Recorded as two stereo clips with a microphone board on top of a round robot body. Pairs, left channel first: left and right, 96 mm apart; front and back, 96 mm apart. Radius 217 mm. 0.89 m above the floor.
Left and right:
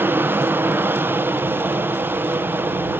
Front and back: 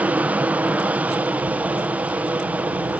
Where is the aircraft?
125° right.